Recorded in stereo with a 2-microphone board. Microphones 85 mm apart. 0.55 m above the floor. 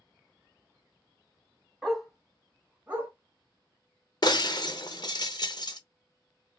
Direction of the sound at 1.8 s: 5° left (ahead or behind).